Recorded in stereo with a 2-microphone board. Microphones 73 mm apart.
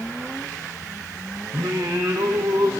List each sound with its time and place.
1.5 s singing: 75° right (ahead or behind), 1.4 m